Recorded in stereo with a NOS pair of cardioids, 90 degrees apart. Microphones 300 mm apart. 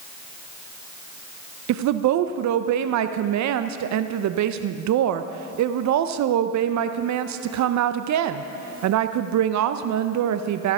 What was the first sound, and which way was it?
A woman speaking, 60° right.